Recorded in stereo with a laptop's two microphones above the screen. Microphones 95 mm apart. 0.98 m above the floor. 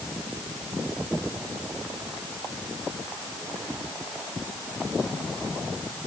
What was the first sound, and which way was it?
Only background noise.